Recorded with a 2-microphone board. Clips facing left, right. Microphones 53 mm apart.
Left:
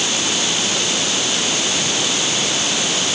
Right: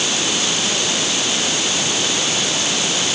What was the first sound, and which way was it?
Only background noise.